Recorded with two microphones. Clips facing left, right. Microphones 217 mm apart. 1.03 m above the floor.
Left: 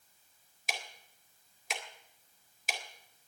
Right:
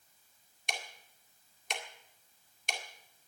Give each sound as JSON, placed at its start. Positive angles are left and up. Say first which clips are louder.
{"t": 0.7, "sound": "ticking", "louder": "even", "side_deg": 5, "distance_m": 1.9}